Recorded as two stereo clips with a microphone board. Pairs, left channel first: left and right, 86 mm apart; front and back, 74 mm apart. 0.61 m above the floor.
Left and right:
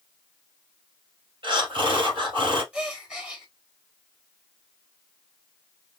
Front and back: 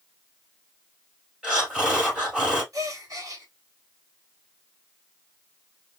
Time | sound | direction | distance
1.4 | breathing | 105° right | 2.5 m
2.7 | a gasp | 165° right | 1.4 m